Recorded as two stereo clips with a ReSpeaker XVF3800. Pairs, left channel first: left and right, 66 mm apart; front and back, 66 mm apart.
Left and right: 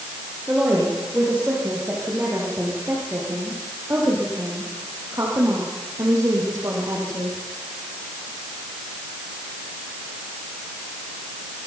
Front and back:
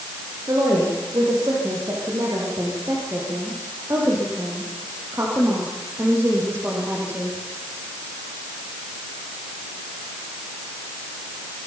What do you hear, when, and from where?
0.5 s a woman speaking: 155° right, 8.5 m; by 7.4 s 120° right, 6.5 m